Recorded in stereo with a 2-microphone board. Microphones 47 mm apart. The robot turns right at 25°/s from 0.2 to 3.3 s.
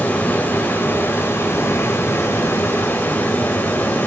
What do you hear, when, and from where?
0.0 s running water: 40° left, 1.4 m; by 4.1 s 115° left, 1.4 m